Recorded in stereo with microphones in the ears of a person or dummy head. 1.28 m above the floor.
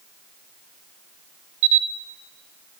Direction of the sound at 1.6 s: 45° right (ahead or behind).